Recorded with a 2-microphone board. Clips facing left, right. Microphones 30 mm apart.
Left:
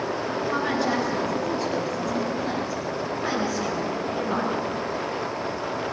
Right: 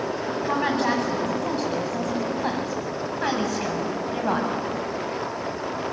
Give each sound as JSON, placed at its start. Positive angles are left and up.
{"t": 0.4, "sound": "a woman speaking", "side_deg": -75, "distance_m": 8.5}